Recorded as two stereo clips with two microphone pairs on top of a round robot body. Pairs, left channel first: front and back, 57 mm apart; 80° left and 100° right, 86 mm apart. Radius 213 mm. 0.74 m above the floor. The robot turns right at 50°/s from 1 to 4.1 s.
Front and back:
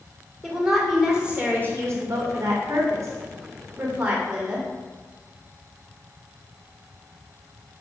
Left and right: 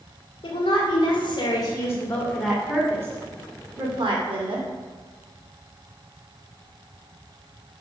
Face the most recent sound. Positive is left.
turn(degrees=-110)